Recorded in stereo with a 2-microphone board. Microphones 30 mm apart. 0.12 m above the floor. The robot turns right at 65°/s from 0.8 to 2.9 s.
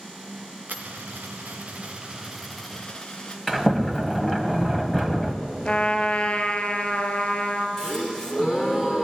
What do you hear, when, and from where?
0.7 s a dropped coin: 110° right, 1.9 m; by 3.4 s 25° left, 1.9 m
3.5 s a sliding door: 15° left (ahead or behind), 2.5 m
5.7 s a trumpet: 40° left (ahead or behind), 1.2 m
7.8 s a gasp: 25° left (ahead or behind), 2.5 m